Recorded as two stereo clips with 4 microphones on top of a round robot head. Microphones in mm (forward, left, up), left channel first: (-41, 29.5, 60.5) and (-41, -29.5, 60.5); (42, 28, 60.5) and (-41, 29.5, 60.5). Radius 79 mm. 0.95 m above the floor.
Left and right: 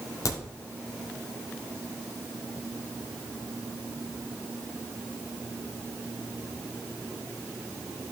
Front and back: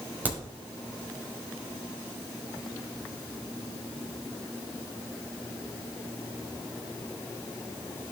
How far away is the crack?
About 5 m.